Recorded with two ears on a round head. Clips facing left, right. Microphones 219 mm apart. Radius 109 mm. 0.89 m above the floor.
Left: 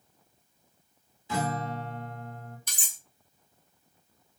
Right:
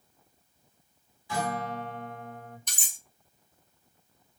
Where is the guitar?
20° left (ahead or behind), 1.0 m.